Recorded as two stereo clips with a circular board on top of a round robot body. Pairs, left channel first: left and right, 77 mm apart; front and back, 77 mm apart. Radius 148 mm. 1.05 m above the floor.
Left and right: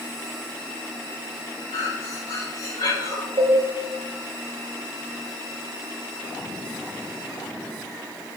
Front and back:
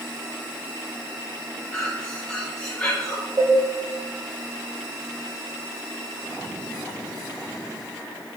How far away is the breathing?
About 3.5 m.